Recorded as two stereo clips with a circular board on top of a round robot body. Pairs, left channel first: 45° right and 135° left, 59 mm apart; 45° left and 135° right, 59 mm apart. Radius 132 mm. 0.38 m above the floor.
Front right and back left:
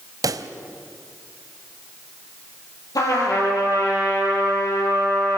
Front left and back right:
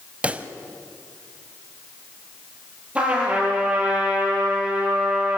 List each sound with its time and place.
0.2 s a pop: 155° left, 0.9 m
3.0 s a trumpet: 65° right, 7.5 m